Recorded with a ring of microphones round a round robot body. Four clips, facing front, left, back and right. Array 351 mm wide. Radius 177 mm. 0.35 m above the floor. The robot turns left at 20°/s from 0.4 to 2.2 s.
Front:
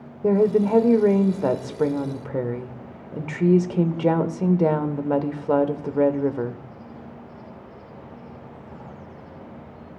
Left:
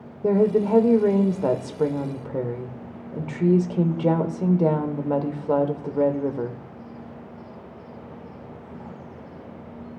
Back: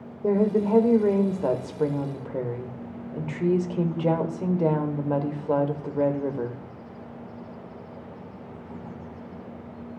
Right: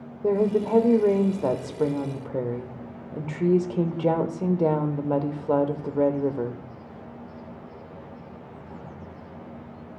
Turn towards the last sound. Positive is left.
turn(degrees=5)